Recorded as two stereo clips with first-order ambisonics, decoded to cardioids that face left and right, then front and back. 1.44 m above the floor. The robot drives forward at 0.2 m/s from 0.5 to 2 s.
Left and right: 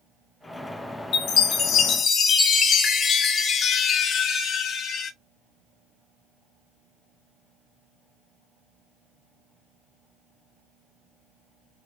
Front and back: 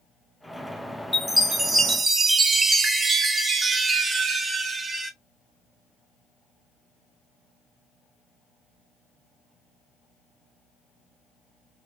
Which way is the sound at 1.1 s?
95° left.